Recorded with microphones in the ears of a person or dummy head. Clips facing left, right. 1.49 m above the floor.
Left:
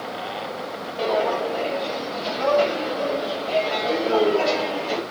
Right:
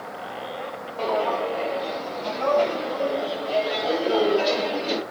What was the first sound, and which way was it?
Footsteps, 20° left (ahead or behind).